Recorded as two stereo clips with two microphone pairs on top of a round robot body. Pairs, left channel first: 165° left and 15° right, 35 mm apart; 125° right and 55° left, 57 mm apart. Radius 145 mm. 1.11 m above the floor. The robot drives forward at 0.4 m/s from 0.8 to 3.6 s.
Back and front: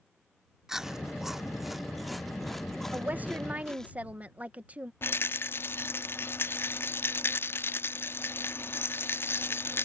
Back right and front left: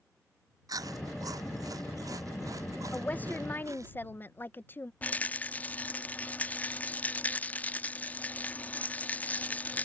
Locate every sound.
0.7 s chewing: 55° left; by 3.9 s 85° left
2.9 s a woman speaking: 60° right; by 4.9 s 70° right
5.0 s a rattle: 170° left